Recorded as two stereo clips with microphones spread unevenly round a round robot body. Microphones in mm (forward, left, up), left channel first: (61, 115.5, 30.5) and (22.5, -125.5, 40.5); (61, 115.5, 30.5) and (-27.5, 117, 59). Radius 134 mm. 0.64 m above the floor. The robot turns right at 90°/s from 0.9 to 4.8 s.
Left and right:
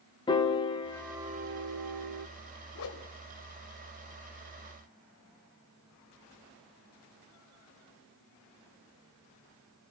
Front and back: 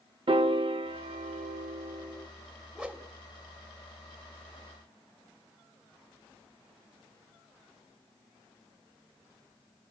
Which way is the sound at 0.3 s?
155° left.